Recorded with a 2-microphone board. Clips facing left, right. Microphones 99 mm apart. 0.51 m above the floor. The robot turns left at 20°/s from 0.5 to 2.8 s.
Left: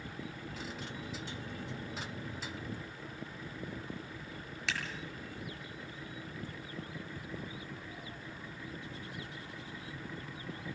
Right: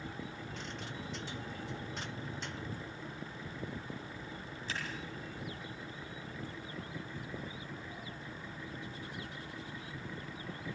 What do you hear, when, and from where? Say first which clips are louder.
4.7 s scissors: left 3 dB; 85° left, 7 m